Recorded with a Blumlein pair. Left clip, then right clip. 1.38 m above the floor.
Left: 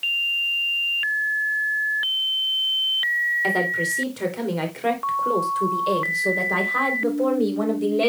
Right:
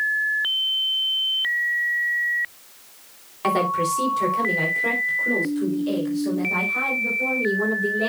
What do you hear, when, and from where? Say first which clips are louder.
3.4 s a woman speaking: right 1 dB; 5° right, 4 m; by 8.1 s 40° left, 6 m